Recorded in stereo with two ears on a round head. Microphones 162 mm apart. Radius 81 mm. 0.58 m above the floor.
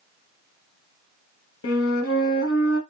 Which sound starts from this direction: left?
A flute, at 1.6 s.